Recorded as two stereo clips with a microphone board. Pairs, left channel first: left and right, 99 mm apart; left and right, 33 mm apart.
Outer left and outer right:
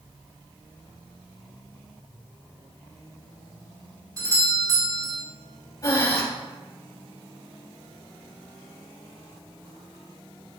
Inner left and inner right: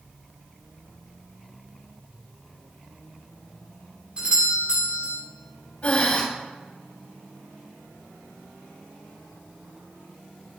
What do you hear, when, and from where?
4.2 s a doorbell: 40° right (ahead or behind), 2 m
5.8 s breathing: 40° left (ahead or behind), 3.5 m